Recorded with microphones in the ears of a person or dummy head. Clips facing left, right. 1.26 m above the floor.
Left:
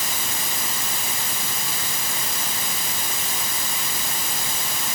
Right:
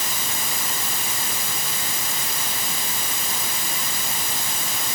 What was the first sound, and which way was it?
Only background noise.